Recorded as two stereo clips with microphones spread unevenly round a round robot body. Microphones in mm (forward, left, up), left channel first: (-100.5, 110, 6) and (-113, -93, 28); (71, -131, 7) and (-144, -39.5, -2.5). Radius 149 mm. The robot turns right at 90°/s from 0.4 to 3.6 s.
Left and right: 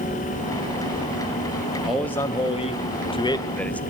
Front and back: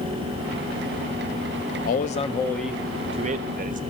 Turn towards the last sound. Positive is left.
turn(degrees=155)